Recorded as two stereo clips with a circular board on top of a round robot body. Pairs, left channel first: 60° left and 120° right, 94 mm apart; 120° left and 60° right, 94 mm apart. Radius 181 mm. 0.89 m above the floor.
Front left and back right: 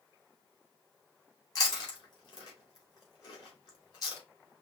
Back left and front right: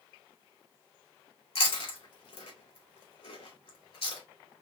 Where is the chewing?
110° left, 2.5 m.